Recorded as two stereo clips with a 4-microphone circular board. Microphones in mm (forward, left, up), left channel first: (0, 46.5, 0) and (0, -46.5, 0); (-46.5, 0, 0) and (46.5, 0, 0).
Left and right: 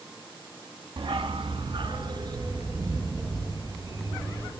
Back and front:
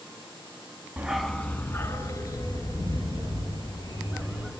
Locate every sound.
1.0 s a dog barking: 70° right, 0.5 m; by 4.5 s 140° right, 3 m